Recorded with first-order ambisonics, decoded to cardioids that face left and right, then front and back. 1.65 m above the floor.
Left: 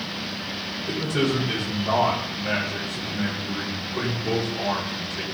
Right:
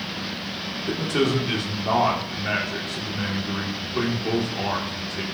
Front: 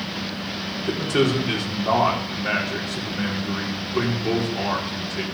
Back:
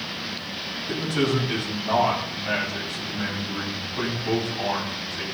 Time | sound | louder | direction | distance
0.9 | a man speaking | right 2 dB, front 4 dB | 25° right | 4 m